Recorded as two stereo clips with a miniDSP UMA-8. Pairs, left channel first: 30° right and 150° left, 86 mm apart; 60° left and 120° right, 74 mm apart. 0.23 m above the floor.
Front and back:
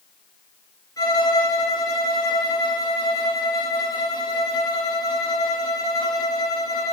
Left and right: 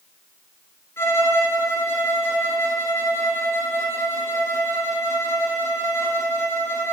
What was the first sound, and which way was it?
A violin, 10° left.